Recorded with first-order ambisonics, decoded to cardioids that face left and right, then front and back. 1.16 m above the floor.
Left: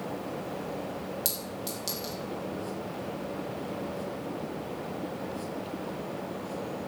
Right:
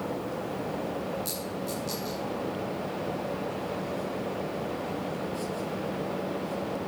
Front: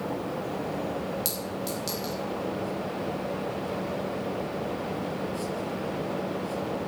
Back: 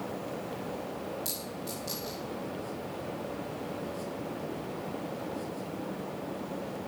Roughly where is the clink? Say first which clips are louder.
Right 2 dB, front 6 dB; ahead left.